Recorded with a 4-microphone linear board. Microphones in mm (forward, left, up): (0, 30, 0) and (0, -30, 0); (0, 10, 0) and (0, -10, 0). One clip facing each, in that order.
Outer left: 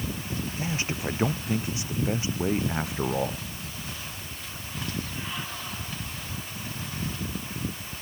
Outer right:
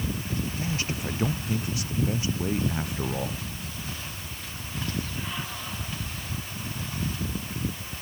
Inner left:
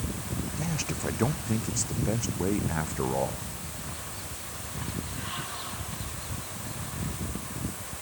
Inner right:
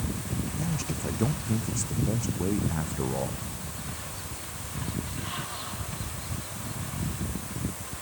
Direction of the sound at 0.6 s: 25° left (ahead or behind).